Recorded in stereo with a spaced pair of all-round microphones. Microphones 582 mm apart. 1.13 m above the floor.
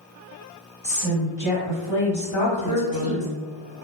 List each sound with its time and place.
0.8 s a woman speaking: 45° left (ahead or behind), 1.4 m
2.4 s a woman speaking: 65° left (ahead or behind), 0.8 m